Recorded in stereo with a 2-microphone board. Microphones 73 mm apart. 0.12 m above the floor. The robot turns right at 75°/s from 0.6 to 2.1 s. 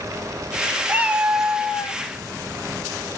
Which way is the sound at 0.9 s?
35° right.